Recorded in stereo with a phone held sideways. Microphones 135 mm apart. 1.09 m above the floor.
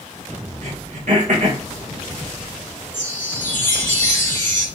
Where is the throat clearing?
65° right (ahead or behind), 1.1 m.